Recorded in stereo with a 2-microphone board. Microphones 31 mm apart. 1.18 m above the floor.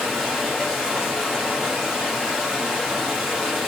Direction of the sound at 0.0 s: 15° right (ahead or behind).